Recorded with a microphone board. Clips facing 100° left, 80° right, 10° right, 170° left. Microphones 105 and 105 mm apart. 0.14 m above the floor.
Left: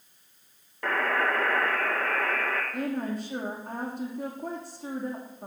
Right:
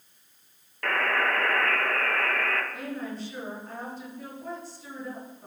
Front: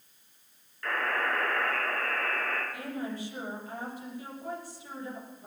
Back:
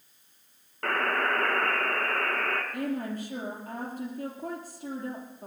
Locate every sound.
0.8 s a buzzer: 175° left, 2 m
2.7 s a woman speaking: 130° left, 5.5 m